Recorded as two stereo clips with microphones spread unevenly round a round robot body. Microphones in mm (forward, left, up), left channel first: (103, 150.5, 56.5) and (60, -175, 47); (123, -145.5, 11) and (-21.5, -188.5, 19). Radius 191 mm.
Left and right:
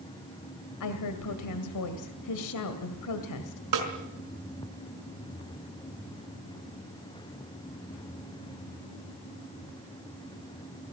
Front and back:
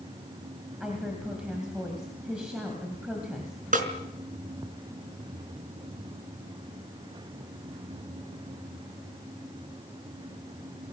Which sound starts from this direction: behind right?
A snare drum, at 3.7 s.